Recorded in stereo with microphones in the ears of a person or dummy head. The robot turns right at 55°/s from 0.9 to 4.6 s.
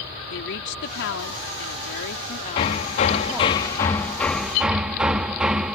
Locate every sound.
0.3 s a woman speaking: 55° left; by 3.6 s 160° right
2.6 s hammering: 25° left (ahead or behind); by 5.8 s 5° right (ahead or behind)